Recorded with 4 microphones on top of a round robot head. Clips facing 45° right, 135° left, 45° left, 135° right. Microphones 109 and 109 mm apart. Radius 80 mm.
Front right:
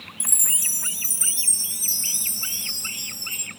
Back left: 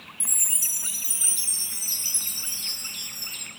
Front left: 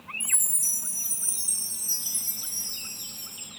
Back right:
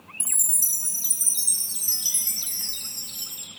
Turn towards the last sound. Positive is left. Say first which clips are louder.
# front right 4 dB, front left 1 dB
turn(degrees=-120)